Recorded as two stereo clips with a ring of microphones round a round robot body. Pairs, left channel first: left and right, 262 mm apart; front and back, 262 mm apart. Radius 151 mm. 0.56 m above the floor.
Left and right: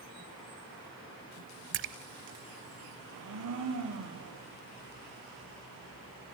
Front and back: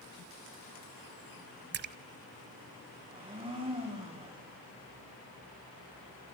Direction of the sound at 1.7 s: 130° right.